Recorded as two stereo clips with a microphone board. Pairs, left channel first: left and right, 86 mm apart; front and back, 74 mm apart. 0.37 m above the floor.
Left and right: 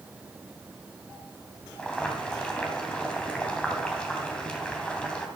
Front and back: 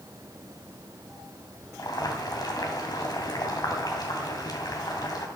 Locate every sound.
1.8 s boiling: 15° left, 2.5 m